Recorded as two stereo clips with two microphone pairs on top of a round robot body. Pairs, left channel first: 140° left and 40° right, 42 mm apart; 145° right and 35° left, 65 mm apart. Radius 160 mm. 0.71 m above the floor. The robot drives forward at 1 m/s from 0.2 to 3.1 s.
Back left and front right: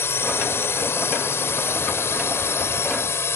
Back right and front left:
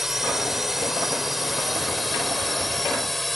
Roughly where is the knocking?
I don't hear knocking.